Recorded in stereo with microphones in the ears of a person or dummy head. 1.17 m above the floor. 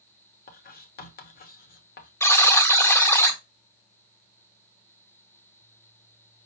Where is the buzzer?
15° left (ahead or behind), 0.7 m.